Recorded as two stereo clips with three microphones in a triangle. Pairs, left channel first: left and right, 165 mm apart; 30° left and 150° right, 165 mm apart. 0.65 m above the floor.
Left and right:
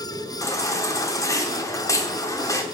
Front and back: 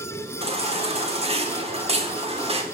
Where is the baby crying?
160° left, 1.0 m.